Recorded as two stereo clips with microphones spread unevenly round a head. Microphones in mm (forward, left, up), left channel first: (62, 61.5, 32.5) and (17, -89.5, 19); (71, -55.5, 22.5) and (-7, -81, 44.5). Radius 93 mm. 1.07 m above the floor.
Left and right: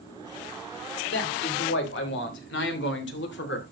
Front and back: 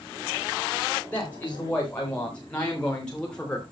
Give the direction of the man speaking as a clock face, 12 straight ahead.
9 o'clock.